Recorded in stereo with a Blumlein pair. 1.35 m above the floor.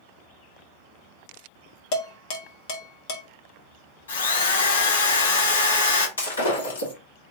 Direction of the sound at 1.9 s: 45° left.